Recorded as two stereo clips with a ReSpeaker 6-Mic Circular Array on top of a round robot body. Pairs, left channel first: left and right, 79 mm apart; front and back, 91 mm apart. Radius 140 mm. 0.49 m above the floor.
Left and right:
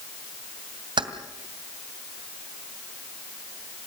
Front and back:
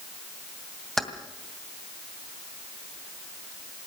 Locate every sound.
1.0 s keys jangling: 85° right, 2.5 m